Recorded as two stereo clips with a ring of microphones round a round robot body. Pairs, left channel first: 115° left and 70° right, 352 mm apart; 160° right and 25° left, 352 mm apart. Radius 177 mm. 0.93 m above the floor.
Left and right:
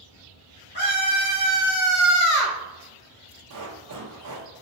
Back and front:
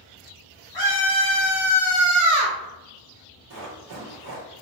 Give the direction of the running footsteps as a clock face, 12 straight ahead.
1 o'clock.